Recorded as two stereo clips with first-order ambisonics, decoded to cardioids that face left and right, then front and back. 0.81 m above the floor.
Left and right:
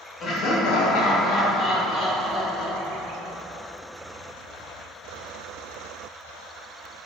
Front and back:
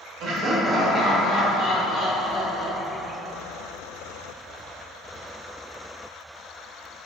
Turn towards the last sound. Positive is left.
turn(degrees=30)